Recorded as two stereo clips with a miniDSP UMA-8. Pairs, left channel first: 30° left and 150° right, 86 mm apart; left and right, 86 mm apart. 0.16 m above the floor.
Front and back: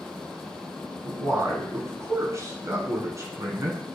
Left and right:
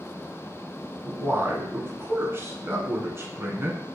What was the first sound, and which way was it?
A man speaking, 130° right.